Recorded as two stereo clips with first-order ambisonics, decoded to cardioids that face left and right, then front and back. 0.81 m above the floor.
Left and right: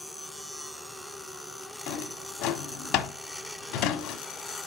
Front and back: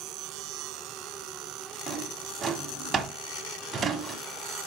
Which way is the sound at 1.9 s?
110° left.